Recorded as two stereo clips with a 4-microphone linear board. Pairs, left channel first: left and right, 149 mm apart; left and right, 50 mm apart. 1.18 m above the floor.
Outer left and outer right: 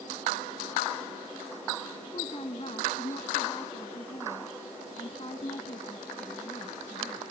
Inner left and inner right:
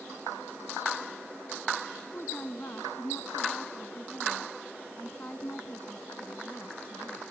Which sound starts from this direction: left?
A woman speaking, at 2.1 s.